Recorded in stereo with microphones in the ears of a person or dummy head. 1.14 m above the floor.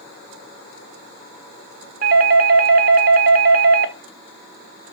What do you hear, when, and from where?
2.0 s a doorbell: 50° right (ahead or behind), 1.1 m